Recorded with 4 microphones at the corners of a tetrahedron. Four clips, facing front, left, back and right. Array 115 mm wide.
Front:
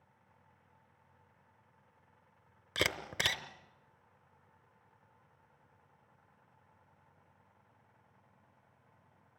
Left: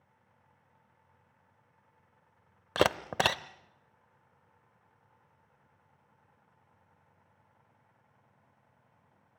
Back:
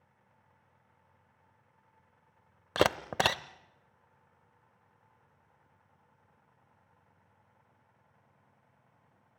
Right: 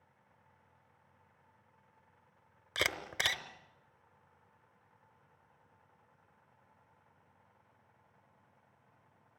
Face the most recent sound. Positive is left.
turn(degrees=140)